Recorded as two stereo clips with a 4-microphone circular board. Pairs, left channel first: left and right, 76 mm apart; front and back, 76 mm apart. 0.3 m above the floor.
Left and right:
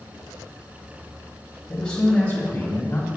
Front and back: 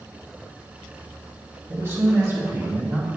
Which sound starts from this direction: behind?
A man speaking, at 1.7 s.